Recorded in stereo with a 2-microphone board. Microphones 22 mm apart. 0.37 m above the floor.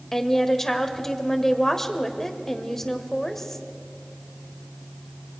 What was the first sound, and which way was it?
A woman speaking, 15° left (ahead or behind).